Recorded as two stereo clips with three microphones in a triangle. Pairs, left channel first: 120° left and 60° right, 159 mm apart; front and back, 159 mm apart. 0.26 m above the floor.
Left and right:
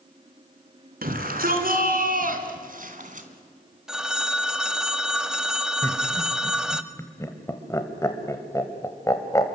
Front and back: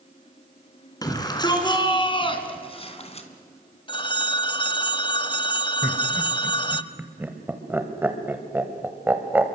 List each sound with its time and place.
1.0 s a shout: 65° right, 3.5 m; by 3.3 s 40° right, 2.5 m
3.9 s a phone ringing: 25° left, 0.7 m
5.8 s laughter: 130° left, 1.5 m